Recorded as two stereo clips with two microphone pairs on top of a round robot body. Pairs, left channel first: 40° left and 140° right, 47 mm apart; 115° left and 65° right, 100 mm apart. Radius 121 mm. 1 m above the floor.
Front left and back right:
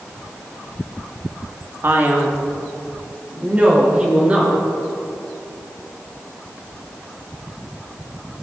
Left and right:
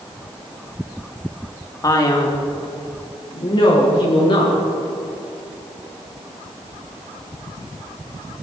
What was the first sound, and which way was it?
A man speaking, 175° left.